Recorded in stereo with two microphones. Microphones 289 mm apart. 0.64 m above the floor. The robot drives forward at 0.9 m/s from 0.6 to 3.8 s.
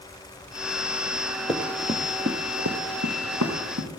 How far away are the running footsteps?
About 1.8 m.